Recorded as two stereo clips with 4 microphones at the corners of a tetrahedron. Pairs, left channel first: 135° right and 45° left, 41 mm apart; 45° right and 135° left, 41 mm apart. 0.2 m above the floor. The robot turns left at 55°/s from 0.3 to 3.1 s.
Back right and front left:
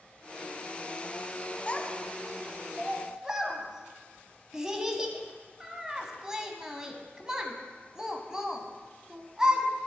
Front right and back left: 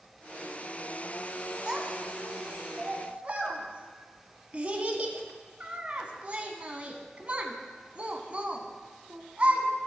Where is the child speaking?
170° right, 0.9 m; by 9.7 s 110° left, 0.9 m.